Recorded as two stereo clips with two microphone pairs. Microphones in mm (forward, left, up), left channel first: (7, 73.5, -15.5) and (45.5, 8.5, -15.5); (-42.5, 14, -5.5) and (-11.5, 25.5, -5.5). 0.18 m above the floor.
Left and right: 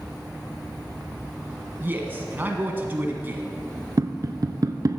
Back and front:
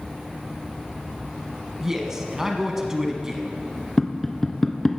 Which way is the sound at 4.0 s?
85° right.